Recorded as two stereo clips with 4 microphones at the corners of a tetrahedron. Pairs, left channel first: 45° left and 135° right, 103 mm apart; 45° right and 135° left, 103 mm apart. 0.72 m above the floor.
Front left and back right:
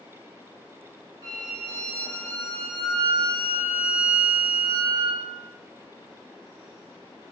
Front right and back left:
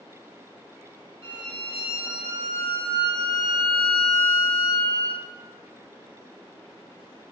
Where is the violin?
105° right, 1.7 m.